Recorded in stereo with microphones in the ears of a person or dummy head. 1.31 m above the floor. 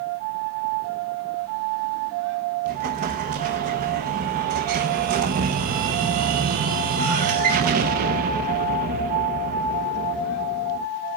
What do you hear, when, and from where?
2.6 s an explosion: 45° right (ahead or behind), 0.8 m